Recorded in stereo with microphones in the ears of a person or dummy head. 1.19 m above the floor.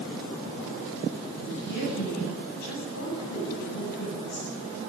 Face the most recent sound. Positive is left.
turn(degrees=60)  # may be behind; listen again after turning